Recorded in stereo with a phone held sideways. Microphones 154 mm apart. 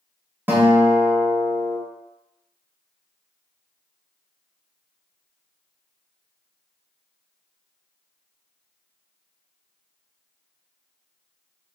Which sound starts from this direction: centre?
A guitar, at 0.5 s.